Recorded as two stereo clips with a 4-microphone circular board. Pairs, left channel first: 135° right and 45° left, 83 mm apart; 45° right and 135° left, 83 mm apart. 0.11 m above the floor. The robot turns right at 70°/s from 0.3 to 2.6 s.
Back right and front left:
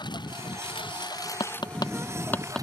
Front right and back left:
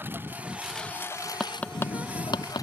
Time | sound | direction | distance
0.0 | a lawn mower | 160° right | ?
1.4 | tapping | 135° right | ?